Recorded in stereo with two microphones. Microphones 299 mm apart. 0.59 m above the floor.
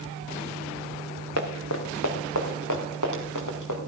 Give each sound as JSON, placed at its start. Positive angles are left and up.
{"t": 1.4, "sound": "running footsteps", "side_deg": 55, "distance_m": 2.5}